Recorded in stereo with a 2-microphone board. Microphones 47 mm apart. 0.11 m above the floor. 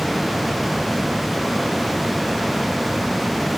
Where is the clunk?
I don't hear a clunk.